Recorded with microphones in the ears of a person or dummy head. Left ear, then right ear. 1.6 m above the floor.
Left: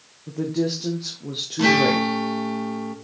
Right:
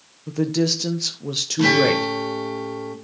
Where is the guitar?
5° left (ahead or behind), 1.5 m.